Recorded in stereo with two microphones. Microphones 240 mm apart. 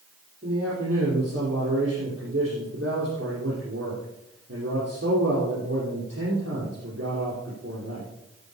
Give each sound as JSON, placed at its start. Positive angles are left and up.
{"t": 0.4, "sound": "a man speaking", "side_deg": -55, "distance_m": 6.0}